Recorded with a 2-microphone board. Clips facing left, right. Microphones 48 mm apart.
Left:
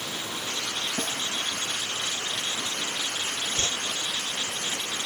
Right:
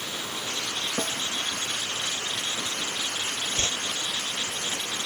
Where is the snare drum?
50° right (ahead or behind).